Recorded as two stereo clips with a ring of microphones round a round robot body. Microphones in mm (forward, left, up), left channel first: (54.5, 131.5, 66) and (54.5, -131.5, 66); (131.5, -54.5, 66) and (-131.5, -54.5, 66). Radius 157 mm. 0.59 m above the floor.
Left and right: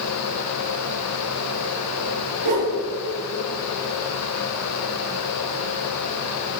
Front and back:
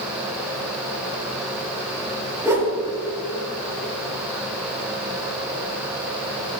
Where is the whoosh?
100° right, 4.5 m.